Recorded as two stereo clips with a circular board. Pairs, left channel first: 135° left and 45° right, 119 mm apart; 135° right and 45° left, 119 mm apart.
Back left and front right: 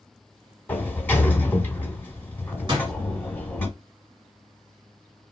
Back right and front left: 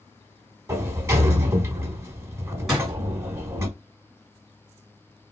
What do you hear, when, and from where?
0.7 s a sliding door: 80° left, 0.7 m
2.7 s a door slam: 40° right, 1.3 m